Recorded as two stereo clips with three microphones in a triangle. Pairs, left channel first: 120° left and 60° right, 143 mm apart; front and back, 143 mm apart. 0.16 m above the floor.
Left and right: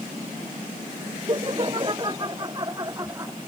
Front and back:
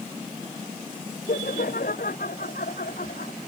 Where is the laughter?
5° right; by 3.3 s 10° left.